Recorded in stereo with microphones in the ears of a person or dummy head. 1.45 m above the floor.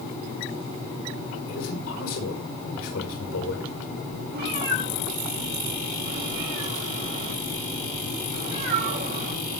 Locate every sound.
1.5 s a man speaking: 90° left, 5 m
4.3 s a cat meowing: 55° right (ahead or behind), 7 m